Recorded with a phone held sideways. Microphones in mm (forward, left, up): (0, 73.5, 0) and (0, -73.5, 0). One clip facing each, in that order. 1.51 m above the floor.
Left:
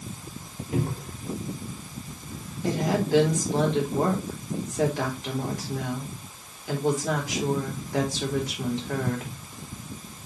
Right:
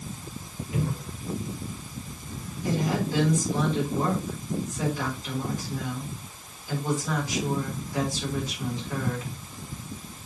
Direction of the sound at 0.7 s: 90° left.